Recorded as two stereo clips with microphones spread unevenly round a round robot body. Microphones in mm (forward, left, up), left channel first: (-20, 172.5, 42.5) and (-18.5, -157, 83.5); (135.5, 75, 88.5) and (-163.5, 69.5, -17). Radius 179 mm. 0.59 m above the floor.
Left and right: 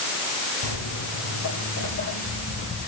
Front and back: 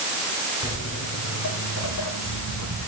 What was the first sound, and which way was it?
Footsteps, 50° left.